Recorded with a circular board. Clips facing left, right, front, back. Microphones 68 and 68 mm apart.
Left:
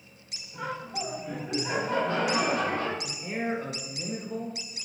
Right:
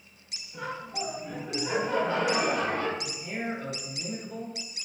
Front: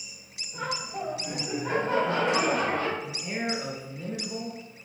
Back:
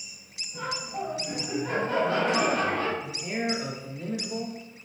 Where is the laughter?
20° left, 1.6 m; by 2.9 s 75° right, 1.3 m.